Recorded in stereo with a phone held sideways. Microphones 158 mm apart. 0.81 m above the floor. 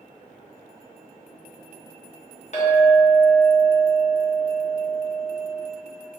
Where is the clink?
50° left (ahead or behind), 0.7 m.